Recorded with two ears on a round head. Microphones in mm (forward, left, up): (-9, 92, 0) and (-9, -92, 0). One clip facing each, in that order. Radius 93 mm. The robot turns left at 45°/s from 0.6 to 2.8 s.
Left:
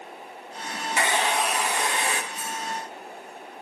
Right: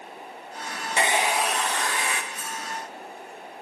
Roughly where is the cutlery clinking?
Right.